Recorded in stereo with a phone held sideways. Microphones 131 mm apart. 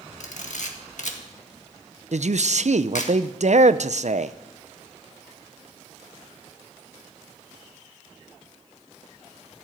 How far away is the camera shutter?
About 1.8 m.